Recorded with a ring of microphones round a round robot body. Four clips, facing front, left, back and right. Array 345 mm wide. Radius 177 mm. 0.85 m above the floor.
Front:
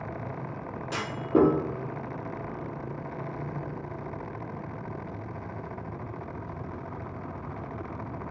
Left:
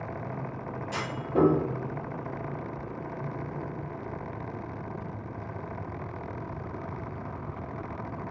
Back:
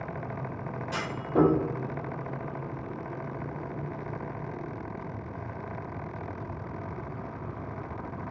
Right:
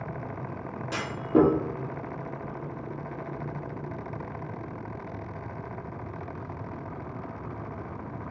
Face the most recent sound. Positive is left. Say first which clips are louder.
# right 5 dB, front 2 dB
turn(degrees=-45)